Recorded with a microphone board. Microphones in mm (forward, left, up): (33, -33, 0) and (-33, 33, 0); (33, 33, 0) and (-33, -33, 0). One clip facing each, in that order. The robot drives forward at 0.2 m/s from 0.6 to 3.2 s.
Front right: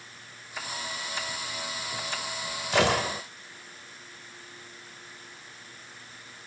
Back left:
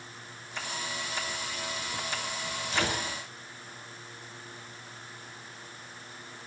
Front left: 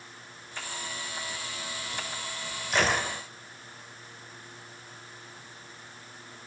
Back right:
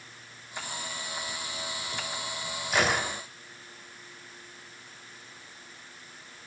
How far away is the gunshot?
About 0.6 m.